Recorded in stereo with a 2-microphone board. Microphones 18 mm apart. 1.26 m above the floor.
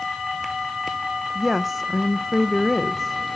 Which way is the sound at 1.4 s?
5° left (ahead or behind).